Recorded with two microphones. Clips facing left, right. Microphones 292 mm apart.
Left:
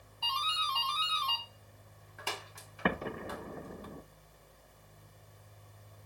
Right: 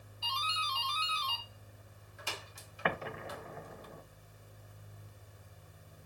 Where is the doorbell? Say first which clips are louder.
Left 2 dB; 65° left (ahead or behind), 3 m.